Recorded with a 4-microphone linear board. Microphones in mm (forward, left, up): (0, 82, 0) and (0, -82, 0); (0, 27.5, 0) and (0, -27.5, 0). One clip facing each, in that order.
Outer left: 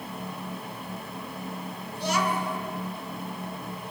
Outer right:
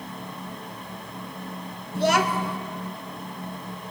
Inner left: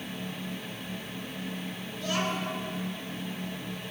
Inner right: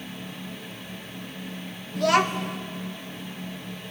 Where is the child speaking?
80° right, 0.5 m.